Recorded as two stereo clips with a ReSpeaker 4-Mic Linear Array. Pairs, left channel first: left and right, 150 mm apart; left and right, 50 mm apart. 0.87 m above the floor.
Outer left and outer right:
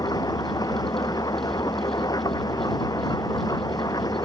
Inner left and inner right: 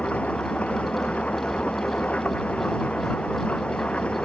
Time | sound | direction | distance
0.0 | an engine running | 25° left (ahead or behind) | ?